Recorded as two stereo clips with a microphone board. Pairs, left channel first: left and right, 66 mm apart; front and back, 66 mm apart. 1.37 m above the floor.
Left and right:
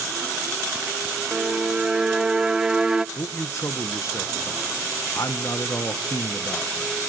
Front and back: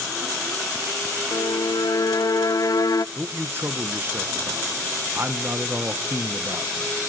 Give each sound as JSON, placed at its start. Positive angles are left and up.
{"t": 1.3, "sound": "a violin", "azimuth_deg": -10, "distance_m": 0.6}
{"t": 3.1, "sound": "a man speaking", "azimuth_deg": 125, "distance_m": 1.3}